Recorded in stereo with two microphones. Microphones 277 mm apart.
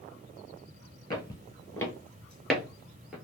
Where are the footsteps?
15° left (ahead or behind), 1.2 m; by 3.1 s 5° right (ahead or behind), 1.2 m.